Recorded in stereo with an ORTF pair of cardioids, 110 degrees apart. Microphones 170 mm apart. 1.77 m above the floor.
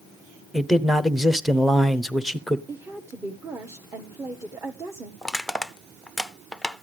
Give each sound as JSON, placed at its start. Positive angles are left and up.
{"t": 0.5, "sound": "a man speaking", "azimuth_deg": 0, "distance_m": 0.8}
{"t": 2.7, "sound": "a woman speaking", "azimuth_deg": -15, "distance_m": 1.0}
{"t": 5.2, "sound": "crushing", "azimuth_deg": 0, "distance_m": 0.6}